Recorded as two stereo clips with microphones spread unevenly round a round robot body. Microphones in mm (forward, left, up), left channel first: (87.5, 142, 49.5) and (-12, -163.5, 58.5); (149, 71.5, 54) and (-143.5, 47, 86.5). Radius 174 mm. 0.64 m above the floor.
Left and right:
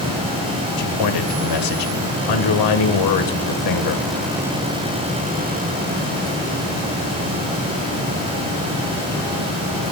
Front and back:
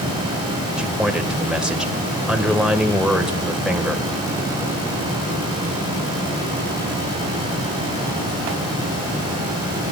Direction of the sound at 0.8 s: 95° left.